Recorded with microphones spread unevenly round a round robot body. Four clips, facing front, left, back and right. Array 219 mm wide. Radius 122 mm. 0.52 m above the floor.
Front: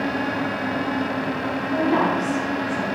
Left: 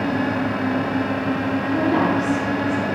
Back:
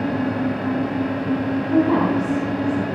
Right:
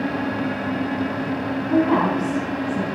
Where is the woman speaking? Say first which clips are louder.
Right 2 dB, back 3 dB; 100° right, 4 m.